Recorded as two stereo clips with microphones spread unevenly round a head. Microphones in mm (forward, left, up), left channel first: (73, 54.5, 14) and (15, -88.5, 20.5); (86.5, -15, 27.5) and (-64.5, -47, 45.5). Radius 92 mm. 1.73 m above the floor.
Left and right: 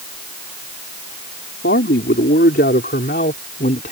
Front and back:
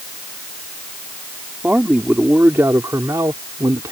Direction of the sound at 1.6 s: 110° left.